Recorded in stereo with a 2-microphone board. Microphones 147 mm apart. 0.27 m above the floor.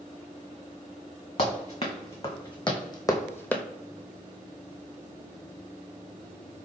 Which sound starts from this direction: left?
Running footsteps, at 1.4 s.